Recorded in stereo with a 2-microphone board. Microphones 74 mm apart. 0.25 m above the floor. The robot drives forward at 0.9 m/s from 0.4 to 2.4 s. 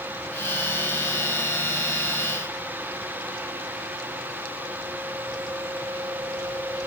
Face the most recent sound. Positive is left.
No sound to turn to.